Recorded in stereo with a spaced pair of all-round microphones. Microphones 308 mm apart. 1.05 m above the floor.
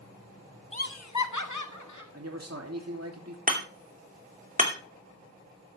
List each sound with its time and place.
0.7 s laughter: 20° left (ahead or behind), 0.6 m; by 2.0 s 70° left (ahead or behind), 2.0 m
2.1 s a man speaking: 55° right (ahead or behind), 2.5 m
3.5 s hammering: 30° right (ahead or behind), 2.5 m